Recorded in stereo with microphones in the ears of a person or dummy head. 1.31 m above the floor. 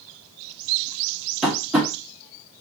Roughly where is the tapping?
Centre.